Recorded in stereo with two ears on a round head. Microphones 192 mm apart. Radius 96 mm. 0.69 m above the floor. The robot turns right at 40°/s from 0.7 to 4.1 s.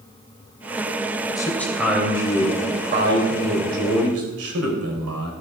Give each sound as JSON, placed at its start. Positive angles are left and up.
{"t": 1.4, "sound": "a man speaking", "azimuth_deg": 160, "distance_m": 3.5}